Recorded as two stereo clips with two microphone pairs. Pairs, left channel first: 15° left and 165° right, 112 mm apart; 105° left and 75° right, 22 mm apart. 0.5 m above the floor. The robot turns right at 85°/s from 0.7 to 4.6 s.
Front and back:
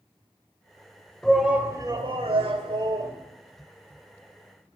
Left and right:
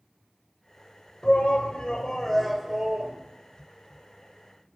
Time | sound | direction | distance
1.2 | a shout | 95° left | 1.7 m